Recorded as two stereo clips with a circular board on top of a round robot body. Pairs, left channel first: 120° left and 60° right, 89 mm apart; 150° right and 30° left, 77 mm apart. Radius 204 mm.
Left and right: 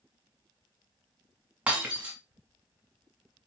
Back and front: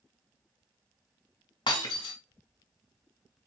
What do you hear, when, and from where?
1.7 s breaking glass: 135° right, 1.5 m